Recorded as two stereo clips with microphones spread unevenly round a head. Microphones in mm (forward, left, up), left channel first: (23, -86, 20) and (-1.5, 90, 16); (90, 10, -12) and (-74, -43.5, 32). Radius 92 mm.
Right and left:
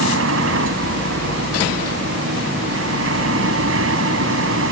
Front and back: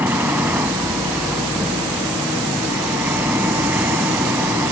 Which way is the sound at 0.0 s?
120° left.